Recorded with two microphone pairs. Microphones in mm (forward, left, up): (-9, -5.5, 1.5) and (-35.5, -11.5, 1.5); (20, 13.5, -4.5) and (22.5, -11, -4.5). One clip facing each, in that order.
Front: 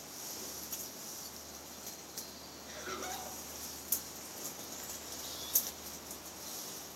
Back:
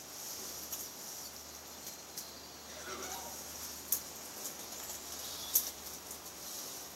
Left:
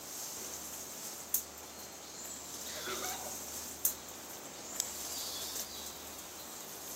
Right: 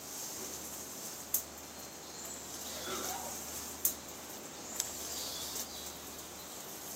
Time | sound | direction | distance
2.7 | laughter | 75° left | 1.7 m